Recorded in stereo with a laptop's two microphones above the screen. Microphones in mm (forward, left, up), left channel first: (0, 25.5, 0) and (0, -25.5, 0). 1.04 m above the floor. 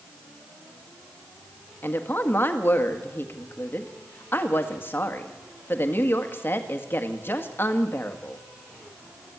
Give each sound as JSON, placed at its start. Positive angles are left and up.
{"t": 1.8, "sound": "a woman speaking", "side_deg": 40, "distance_m": 1.6}